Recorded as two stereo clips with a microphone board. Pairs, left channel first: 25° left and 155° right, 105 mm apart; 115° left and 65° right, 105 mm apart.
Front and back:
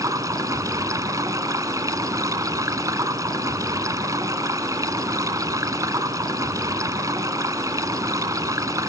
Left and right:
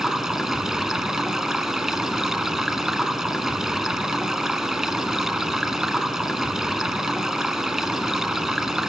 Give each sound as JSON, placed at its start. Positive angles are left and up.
{"t": 0.0, "sound": "running water", "azimuth_deg": -150, "distance_m": 1.5}